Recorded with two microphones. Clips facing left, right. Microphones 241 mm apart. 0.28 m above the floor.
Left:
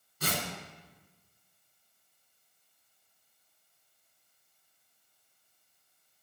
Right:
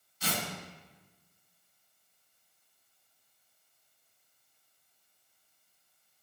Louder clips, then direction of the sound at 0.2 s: Left 1 dB; 60° left (ahead or behind).